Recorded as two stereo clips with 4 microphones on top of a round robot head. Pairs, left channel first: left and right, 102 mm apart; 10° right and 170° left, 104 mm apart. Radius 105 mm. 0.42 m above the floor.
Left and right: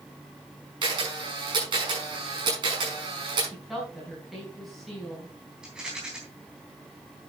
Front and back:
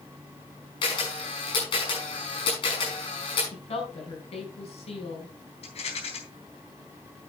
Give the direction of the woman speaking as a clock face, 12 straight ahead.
12 o'clock.